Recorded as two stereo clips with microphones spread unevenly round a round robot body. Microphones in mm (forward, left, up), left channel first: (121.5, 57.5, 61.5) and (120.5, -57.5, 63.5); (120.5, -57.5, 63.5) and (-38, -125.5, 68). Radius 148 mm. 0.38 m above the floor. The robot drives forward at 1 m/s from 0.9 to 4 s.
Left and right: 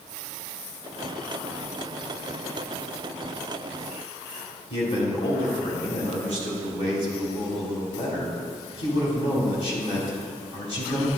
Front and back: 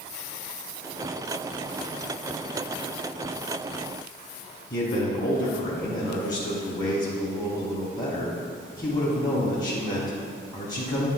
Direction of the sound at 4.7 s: 65° left.